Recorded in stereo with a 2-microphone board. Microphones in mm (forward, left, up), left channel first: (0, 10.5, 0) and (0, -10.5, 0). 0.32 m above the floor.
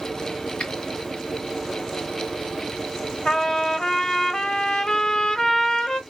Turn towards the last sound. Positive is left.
turn(degrees=35)  # may be behind; listen again after turning